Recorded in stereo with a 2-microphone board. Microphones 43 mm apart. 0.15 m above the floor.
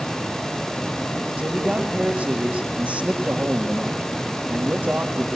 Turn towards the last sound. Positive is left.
turn(degrees=-30)  # may be behind; listen again after turning